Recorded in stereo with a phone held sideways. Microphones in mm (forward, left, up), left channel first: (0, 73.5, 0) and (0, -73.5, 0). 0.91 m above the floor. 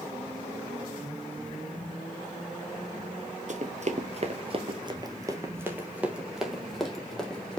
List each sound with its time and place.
3.5 s running footsteps: 55° right (ahead or behind), 1.4 m; by 7.6 s 5° left (ahead or behind), 2.5 m